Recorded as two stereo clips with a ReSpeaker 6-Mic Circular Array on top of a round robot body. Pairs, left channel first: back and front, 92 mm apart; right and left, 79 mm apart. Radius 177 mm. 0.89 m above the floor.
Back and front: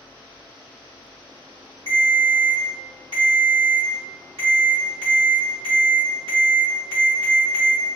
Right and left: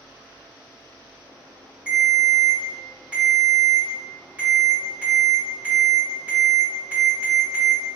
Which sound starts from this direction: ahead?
A ringtone, at 1.9 s.